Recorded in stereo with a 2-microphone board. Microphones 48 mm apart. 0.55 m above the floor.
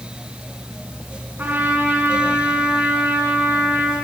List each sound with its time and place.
1.4 s a trumpet: 40° right (ahead or behind), 5.5 m